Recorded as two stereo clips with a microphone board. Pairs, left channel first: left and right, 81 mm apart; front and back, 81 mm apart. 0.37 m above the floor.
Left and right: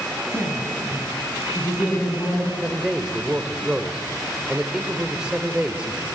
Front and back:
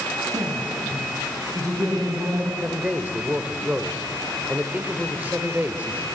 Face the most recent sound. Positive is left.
turn(degrees=-150)